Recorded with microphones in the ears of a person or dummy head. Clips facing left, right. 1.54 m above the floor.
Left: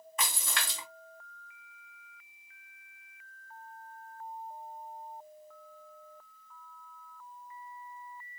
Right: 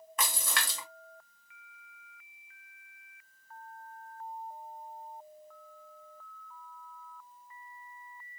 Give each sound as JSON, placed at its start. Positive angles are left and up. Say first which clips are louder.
{"t": 0.2, "sound": "a splash", "louder": "right 2 dB", "side_deg": -45, "distance_m": 0.8}